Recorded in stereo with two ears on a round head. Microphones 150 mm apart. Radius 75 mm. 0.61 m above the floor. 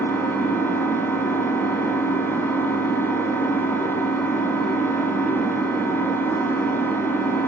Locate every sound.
0.0 s an engine running: 15° left (ahead or behind), 2.0 m